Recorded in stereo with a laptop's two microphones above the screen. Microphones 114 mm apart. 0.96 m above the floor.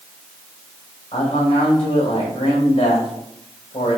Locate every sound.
1.1 s a man speaking: 55° left (ahead or behind), 4 m